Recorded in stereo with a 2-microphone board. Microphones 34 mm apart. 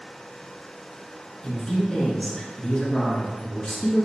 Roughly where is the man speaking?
Left.